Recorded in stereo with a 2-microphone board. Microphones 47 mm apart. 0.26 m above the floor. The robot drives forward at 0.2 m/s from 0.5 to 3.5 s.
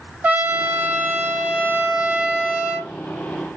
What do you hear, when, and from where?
0.2 s a trumpet: 35° right (ahead or behind), 0.6 m; by 2.9 s 25° right (ahead or behind), 0.9 m